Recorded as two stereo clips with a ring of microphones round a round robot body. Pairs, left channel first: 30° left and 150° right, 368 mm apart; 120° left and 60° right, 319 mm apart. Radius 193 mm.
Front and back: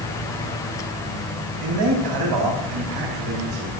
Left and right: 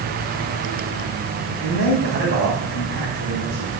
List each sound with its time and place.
1.6 s a man speaking: 125° right, 4 m